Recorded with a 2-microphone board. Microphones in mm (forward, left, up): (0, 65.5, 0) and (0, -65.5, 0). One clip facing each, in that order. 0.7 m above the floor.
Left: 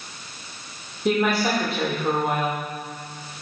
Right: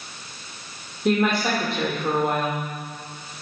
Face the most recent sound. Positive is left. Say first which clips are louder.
# even
turn(degrees=0)  # may be behind; listen again after turning